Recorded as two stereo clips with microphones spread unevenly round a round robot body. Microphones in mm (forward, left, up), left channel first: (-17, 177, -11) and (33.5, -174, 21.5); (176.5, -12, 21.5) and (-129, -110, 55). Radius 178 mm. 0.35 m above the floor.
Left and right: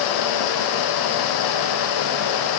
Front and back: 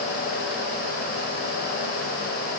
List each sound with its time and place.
Only background noise.